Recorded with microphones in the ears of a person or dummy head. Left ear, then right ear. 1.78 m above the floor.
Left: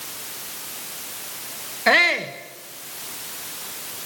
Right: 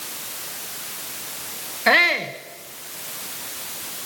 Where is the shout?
Centre (ahead or behind), 1.0 m.